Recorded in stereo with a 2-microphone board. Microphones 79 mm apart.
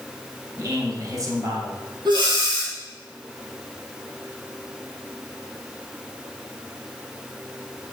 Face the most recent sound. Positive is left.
turn(degrees=-80)